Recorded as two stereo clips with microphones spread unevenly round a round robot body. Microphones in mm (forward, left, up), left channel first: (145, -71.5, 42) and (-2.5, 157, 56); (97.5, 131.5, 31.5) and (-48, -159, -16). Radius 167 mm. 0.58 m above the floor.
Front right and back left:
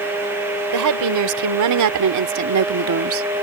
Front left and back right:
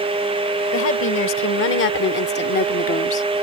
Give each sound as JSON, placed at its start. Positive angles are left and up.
{"t": 0.7, "sound": "a woman speaking", "azimuth_deg": 120}